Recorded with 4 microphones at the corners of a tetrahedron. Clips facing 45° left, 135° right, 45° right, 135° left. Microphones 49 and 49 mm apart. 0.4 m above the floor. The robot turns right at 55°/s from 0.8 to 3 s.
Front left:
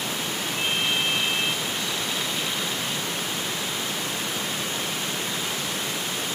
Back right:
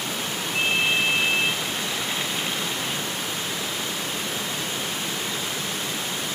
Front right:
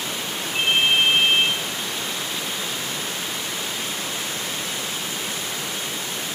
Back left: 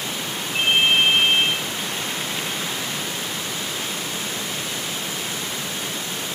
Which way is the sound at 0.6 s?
145° right.